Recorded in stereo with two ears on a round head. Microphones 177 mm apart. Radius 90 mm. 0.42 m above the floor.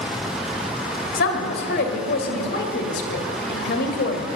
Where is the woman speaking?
55° left (ahead or behind), 2 m.